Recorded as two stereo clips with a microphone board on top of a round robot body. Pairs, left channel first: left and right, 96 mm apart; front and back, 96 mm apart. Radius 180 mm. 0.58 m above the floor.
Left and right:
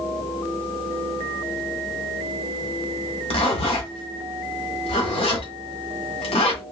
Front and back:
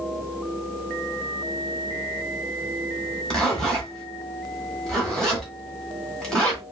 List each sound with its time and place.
3.3 s a zipper: 80° left, 1.4 m